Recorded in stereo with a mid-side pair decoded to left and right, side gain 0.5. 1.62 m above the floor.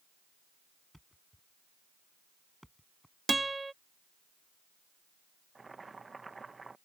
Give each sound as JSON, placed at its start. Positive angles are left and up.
{"t": 0.9, "sound": "a thud", "azimuth_deg": 0}
{"t": 3.3, "sound": "a guitar", "azimuth_deg": -15}
{"t": 5.5, "sound": "boiling", "azimuth_deg": -25}